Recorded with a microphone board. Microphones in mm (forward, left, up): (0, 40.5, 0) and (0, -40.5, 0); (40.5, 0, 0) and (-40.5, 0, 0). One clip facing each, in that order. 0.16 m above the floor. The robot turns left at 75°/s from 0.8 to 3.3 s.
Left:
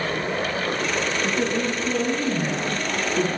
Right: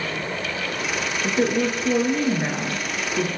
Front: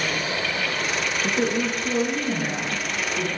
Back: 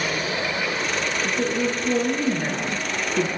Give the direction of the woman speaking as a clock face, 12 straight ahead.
1 o'clock.